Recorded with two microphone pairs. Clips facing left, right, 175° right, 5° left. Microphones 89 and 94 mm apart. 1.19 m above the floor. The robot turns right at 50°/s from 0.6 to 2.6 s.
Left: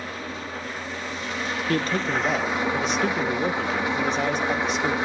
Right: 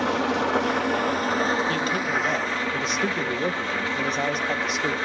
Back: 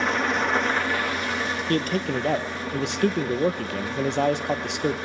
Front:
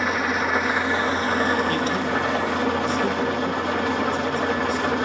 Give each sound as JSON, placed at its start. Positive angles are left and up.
{"t": 0.0, "sound": "an engine running", "azimuth_deg": -80, "distance_m": 0.9}
{"t": 1.7, "sound": "a man speaking", "azimuth_deg": 140, "distance_m": 0.9}